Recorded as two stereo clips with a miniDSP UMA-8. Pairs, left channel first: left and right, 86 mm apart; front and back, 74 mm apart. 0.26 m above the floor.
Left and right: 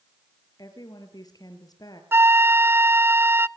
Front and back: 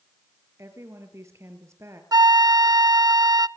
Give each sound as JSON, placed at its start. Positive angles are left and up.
{"t": 0.6, "sound": "a woman speaking", "azimuth_deg": 130, "distance_m": 5.5}
{"t": 2.1, "sound": "a flute", "azimuth_deg": -150, "distance_m": 0.5}